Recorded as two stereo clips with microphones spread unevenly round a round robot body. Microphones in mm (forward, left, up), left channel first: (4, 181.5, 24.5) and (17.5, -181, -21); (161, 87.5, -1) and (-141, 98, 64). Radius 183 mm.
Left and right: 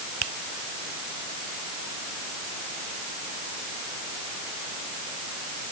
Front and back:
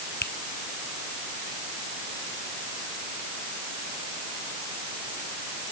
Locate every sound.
0.2 s a finger snap: 70° right